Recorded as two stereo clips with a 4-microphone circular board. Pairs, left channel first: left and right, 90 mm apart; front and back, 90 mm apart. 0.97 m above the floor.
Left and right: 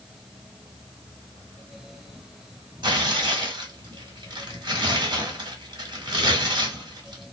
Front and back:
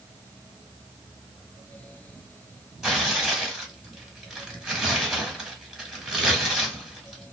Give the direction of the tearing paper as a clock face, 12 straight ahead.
3 o'clock.